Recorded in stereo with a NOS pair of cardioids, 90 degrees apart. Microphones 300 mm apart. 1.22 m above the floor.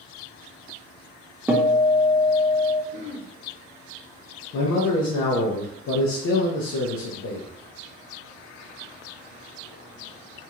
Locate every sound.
1.5 s a guitar: 5° right, 0.6 m
2.9 s throat clearing: 50° left, 1.3 m
4.5 s a man speaking: 65° left, 0.8 m